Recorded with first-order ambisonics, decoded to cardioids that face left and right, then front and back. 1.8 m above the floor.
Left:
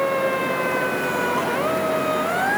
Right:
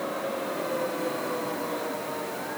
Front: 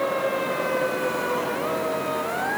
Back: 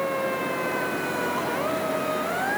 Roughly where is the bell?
No bell in this recording.